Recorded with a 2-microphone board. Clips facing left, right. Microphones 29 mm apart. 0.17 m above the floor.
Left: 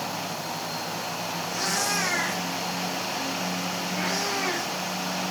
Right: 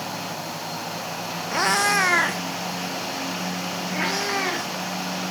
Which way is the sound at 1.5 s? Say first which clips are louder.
Right 8 dB; 60° right (ahead or behind).